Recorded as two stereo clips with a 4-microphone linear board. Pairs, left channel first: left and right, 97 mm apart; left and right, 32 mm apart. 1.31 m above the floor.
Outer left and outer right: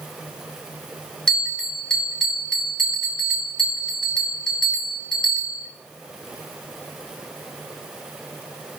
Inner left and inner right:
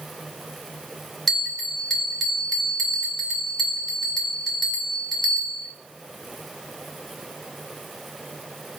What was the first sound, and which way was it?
A bell, 5° left (ahead or behind).